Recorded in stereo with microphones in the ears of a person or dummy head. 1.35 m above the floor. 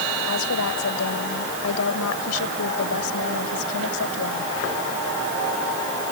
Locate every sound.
0.3 s a woman speaking: 80° left